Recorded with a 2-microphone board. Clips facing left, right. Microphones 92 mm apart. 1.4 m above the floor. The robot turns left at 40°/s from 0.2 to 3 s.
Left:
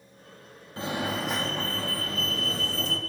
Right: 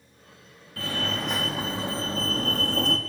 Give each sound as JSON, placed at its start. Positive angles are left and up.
{"t": 0.8, "sound": "a fire alarm", "azimuth_deg": 20, "distance_m": 4.5}